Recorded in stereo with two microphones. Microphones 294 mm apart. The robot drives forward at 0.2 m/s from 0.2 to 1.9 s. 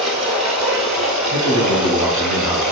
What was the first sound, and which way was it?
Running water, 60° right (ahead or behind).